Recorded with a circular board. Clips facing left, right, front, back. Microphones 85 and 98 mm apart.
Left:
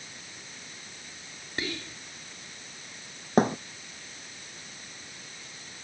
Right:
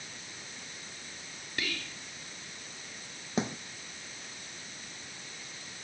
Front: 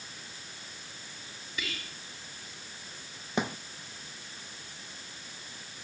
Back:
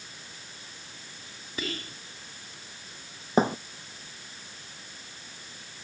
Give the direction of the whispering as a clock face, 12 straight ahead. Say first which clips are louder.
Left 3 dB, back 5 dB; 7 o'clock.